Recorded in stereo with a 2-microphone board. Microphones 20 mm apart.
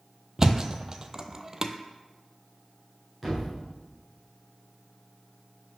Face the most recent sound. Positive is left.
turn(degrees=5)  # may be behind; listen again after turning